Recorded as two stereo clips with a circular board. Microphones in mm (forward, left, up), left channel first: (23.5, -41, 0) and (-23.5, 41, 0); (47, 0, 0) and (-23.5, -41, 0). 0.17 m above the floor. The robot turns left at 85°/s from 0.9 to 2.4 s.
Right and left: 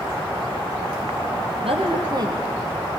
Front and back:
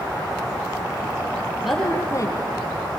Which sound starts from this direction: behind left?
A woman speaking, at 1.6 s.